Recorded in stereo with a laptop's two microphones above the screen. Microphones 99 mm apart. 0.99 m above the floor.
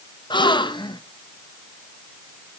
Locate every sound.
0.3 s a gasp: 55° left (ahead or behind), 0.7 m